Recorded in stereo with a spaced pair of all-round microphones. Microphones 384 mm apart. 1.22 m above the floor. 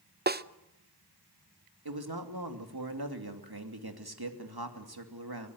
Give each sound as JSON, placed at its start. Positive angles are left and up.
{"t": 0.3, "sound": "a snare drum", "side_deg": -25, "distance_m": 0.6}
{"t": 1.9, "sound": "a man speaking", "side_deg": -75, "distance_m": 2.5}